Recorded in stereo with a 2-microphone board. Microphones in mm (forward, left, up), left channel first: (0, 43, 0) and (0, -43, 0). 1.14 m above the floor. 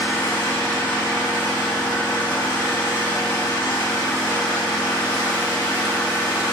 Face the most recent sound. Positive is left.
turn(degrees=20)  # may be behind; listen again after turning